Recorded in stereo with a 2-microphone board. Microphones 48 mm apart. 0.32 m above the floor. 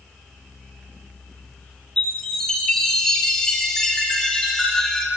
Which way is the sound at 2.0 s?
5° left (ahead or behind).